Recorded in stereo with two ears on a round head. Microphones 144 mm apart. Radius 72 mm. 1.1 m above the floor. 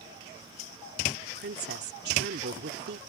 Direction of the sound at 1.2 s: 75° right (ahead or behind).